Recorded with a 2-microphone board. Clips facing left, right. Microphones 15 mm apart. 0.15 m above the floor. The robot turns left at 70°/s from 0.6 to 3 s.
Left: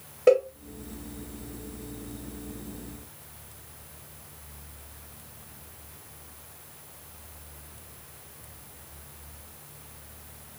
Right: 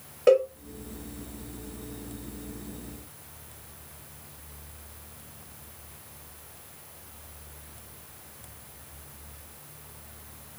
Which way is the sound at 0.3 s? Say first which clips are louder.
Even; 5° right (ahead or behind).